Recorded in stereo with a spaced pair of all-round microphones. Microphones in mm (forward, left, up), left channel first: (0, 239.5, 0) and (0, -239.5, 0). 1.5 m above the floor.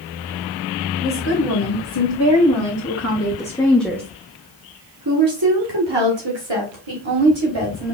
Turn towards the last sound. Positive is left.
turn(degrees=-75)  # may be behind; listen again after turning